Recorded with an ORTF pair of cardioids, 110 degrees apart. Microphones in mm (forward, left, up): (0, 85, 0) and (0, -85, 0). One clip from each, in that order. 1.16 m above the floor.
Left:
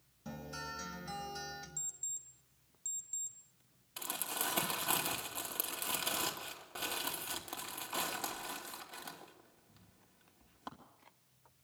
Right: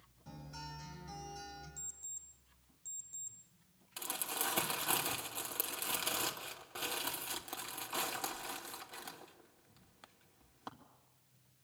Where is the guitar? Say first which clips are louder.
Left 5 dB; 70° left, 6 m.